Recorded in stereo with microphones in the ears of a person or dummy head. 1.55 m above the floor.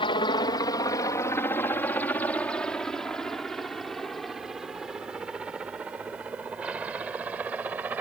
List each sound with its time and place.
0.0 s a helicopter: 30° left (ahead or behind); by 8.0 s 5° right (ahead or behind)